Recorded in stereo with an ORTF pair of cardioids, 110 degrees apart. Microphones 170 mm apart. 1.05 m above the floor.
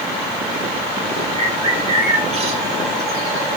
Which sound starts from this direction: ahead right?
A bird, at 1.4 s.